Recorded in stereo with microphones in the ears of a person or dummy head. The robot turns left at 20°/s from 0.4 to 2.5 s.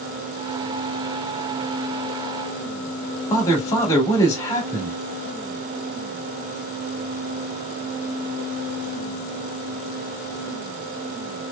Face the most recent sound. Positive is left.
turn(degrees=15)  # may be behind; listen again after turning